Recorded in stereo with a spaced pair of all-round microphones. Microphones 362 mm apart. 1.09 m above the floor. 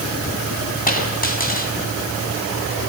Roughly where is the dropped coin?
Left.